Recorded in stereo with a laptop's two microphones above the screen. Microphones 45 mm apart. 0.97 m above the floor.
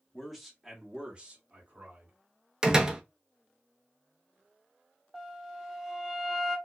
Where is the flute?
Centre (ahead or behind), 0.9 m.